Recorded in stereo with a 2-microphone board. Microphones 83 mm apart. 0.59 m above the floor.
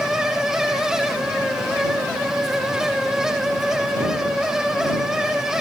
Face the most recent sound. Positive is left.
No sound to turn to.